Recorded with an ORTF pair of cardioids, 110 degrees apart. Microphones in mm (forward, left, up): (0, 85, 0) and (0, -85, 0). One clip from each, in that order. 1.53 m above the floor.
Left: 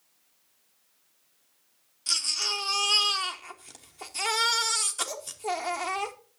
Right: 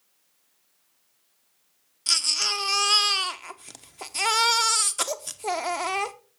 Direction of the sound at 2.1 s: 30° right.